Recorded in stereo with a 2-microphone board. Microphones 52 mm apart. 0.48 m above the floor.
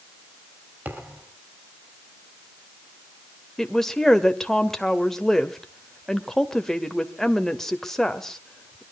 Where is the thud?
40° right (ahead or behind), 4.5 m.